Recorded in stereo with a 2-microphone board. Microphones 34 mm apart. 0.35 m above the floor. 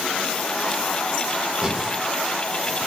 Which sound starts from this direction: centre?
Breathing, at 1.6 s.